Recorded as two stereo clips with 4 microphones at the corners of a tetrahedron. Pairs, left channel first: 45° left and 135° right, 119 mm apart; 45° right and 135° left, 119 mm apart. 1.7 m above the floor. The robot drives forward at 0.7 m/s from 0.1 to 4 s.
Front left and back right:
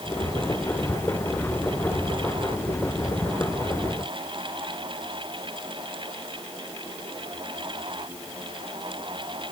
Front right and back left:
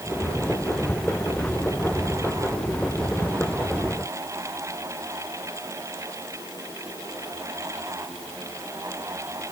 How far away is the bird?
No bird in this recording.